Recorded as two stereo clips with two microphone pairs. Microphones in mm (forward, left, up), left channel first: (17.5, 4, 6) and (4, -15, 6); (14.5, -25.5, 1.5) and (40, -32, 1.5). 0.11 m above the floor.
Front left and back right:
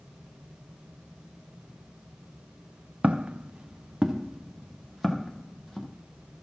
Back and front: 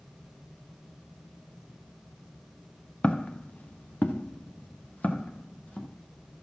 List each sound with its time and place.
3.0 s footsteps: 145° right, 1.1 m; by 5.9 s 140° left, 3 m